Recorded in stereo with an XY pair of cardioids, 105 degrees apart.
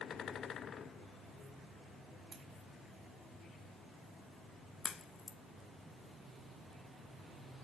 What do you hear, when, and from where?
2.3 s scissors: 45° right, 4 m
4.8 s a crack: 35° left, 0.9 m